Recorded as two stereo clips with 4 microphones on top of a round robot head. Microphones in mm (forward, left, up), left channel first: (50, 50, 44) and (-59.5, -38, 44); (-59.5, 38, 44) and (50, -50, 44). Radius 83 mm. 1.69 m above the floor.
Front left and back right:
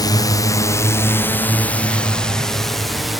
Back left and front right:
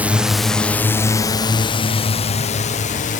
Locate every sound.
0.0 s a drone: 30° left; by 3.2 s 130° left